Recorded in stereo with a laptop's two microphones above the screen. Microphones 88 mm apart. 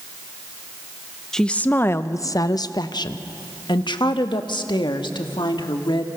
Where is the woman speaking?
5° left (ahead or behind), 0.6 m; by 6.1 s 70° left (ahead or behind), 2.5 m.